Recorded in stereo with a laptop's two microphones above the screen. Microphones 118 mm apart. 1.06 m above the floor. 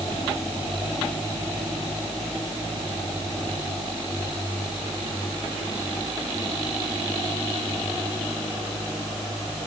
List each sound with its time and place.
Only background noise.